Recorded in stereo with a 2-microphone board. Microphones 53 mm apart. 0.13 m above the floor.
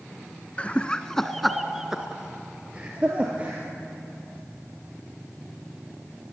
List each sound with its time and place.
0.6 s laughter: 25° left (ahead or behind), 1.2 m; by 3.6 s 25° right (ahead or behind), 3 m